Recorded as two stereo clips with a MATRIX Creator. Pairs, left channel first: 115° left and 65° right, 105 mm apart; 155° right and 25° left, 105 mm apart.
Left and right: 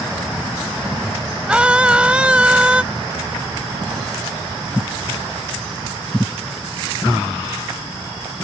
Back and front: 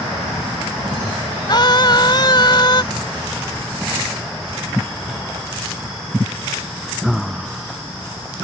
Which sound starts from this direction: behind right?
A scream, at 1.5 s.